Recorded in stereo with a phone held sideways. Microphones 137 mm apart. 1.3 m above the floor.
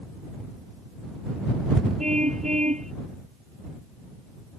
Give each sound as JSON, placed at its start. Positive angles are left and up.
{"t": 2.0, "sound": "a car horn", "side_deg": -65}